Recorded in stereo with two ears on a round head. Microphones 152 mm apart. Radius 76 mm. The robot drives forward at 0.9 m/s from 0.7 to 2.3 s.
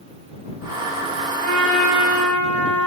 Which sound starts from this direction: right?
A trumpet, at 1.4 s.